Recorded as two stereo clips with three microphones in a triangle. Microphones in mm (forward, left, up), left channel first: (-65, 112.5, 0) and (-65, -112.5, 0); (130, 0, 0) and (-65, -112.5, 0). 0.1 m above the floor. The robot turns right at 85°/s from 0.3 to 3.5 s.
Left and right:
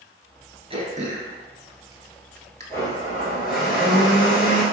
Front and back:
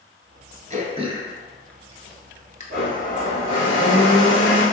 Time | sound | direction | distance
0.7 | throat clearing | 135° right | 0.9 m
2.7 | a blender | 15° left | 1.9 m